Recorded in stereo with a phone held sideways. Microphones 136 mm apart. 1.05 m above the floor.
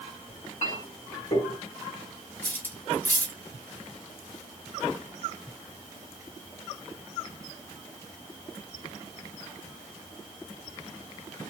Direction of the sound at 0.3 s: 65° left (ahead or behind).